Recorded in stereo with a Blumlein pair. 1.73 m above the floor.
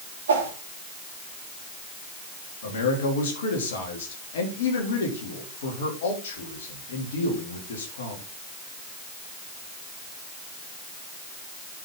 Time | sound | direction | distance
0.3 | a whoosh | 65° right | 3 m
2.6 | a man speaking | 60° left | 3.5 m